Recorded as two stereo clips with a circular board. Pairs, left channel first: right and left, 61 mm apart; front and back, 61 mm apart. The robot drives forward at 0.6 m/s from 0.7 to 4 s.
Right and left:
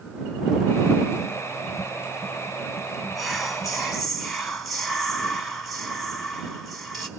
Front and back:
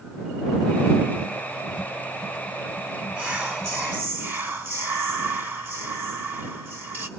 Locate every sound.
3.1 s whispering: 175° right, 1.2 m; by 7.1 s straight behind, 1.5 m